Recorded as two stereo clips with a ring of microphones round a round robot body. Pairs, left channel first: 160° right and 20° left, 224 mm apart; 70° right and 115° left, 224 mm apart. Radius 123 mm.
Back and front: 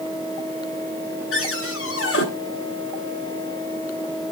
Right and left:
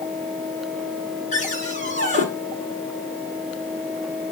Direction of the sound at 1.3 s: 125° right.